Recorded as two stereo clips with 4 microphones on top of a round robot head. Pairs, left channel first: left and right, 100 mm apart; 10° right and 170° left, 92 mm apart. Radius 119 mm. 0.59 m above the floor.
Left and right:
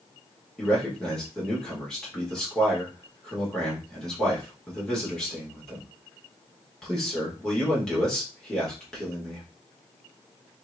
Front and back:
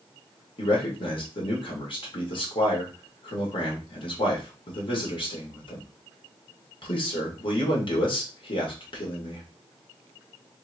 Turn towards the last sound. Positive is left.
turn(degrees=5)